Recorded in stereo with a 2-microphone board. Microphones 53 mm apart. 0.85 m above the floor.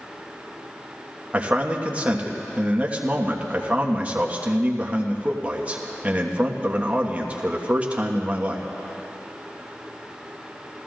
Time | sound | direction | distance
1.3 | a man speaking | 25° right (ahead or behind) | 1.2 m